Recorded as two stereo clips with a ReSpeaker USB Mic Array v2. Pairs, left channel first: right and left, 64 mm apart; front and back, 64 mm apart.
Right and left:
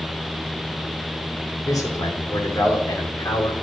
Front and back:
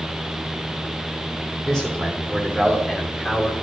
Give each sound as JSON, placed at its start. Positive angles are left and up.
{"t": 1.6, "sound": "a man speaking", "azimuth_deg": -80, "distance_m": 3.0}